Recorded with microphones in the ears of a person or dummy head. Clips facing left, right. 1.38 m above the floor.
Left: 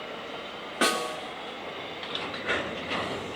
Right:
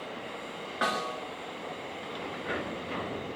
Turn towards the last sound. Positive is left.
turn(degrees=40)  # may be behind; listen again after turning